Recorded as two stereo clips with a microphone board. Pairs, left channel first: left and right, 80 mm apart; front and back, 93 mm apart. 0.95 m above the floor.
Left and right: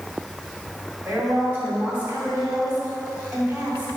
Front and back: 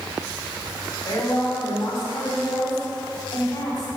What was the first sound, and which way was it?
A woman speaking, 25° right.